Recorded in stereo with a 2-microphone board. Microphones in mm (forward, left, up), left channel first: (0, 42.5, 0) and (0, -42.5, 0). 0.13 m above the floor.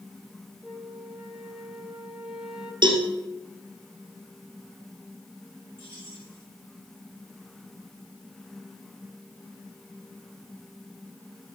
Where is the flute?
10° right (ahead or behind), 1.3 m.